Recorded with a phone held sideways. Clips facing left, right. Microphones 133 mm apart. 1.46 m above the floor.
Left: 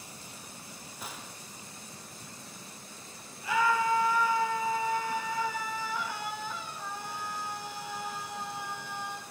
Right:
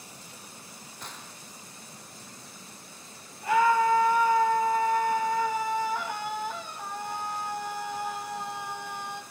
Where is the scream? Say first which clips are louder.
Right 5 dB; 55° right (ahead or behind), 2.5 m.